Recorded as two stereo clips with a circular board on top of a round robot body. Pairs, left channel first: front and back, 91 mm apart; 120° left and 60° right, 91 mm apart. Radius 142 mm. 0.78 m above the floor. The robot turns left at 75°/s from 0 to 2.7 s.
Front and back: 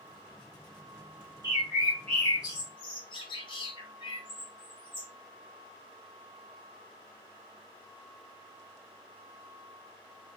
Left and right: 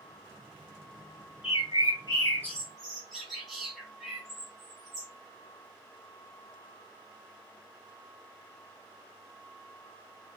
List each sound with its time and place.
1.4 s a bird: 125° left, 0.5 m; by 5.1 s 30° left, 0.5 m